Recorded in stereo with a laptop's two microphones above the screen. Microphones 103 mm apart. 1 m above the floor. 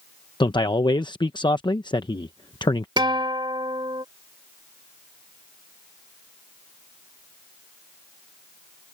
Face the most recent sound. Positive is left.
turn(degrees=-50)  # may be behind; listen again after turning